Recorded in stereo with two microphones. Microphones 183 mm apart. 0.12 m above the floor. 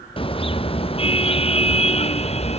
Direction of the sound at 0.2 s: 30° left (ahead or behind).